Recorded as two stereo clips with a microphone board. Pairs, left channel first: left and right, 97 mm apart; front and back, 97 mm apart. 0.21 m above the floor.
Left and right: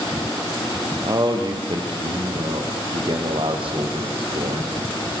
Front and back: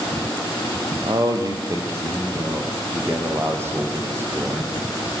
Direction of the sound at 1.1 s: 135° right.